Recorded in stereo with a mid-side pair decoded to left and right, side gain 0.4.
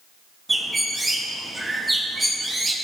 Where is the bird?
20° right, 2.5 m.